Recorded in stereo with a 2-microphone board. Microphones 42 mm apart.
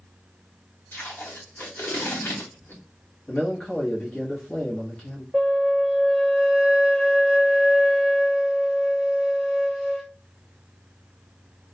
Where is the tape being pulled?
70° left (ahead or behind), 1.1 m.